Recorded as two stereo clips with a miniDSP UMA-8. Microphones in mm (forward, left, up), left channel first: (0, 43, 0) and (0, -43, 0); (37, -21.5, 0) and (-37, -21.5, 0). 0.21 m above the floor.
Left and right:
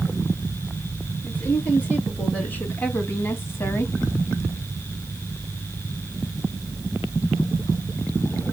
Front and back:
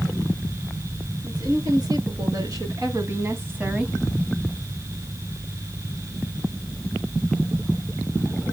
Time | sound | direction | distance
1.2 | a woman speaking | 160° left | 3 m